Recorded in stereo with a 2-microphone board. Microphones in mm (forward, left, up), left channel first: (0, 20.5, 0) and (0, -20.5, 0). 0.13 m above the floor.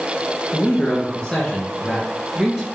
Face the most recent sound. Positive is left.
turn(degrees=-10)  # may be behind; listen again after turning